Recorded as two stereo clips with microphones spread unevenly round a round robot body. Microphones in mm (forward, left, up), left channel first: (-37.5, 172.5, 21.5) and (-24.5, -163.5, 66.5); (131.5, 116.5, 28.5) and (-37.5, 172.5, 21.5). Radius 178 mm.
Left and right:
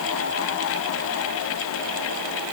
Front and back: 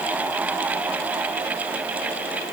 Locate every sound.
Only background noise.